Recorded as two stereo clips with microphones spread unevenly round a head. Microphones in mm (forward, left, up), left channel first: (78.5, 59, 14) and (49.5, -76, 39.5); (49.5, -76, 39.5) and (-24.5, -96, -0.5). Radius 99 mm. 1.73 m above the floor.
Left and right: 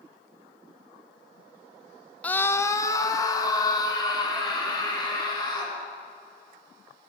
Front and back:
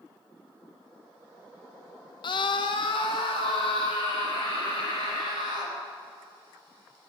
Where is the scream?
5° right, 0.8 m; by 5.8 s 15° left, 6 m.